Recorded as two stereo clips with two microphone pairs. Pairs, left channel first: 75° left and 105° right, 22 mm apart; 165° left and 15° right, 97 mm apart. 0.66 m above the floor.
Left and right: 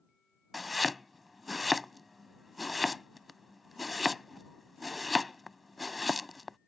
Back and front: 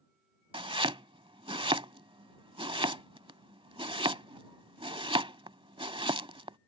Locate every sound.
0.5 s chopping: 20° right